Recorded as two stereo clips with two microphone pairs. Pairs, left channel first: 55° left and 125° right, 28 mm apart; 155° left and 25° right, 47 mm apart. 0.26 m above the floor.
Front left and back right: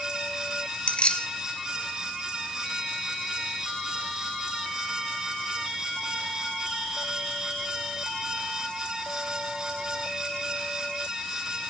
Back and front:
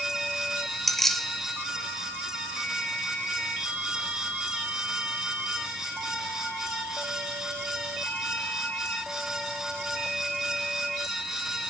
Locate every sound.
0.9 s keys jangling: 70° left, 0.8 m